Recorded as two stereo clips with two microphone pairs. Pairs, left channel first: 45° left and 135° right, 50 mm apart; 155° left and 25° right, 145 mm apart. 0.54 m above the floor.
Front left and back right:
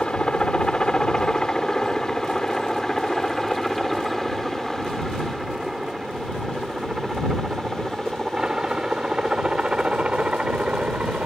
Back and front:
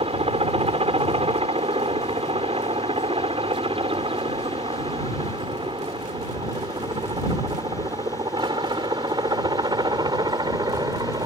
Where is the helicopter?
20° right; by 11.3 s 80° right.